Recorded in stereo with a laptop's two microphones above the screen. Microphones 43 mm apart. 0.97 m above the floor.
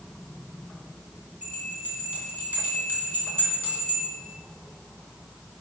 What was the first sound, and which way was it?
A bell, 50° right (ahead or behind).